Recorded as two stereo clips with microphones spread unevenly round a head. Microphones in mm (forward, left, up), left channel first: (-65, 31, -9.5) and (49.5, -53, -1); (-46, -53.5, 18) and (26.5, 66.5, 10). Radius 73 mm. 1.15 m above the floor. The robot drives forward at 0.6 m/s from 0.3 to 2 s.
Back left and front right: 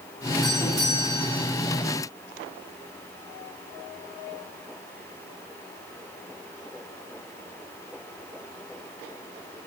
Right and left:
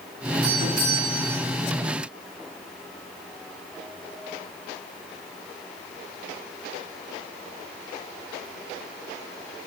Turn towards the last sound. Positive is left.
turn(degrees=65)